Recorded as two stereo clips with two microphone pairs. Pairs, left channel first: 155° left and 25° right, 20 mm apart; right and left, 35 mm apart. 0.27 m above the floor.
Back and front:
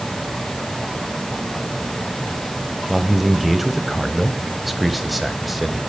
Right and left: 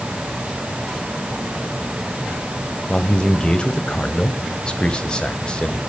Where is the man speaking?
115° right, 1.0 m.